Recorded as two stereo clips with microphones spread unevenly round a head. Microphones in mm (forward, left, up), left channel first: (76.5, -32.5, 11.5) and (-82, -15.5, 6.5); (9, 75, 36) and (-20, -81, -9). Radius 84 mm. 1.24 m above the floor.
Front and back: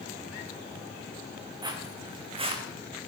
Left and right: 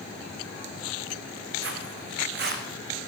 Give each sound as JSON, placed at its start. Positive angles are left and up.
{"t": 1.6, "sound": "footsteps", "azimuth_deg": -120, "distance_m": 4.5}